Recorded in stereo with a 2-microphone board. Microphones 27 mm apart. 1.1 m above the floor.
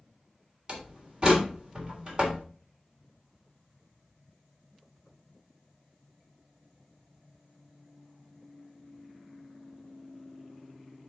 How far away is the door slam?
About 3 m.